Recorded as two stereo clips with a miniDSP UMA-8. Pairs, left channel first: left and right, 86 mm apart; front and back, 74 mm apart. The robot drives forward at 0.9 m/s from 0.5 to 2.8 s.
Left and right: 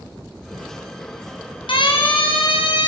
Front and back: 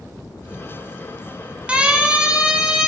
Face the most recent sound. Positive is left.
turn(degrees=100)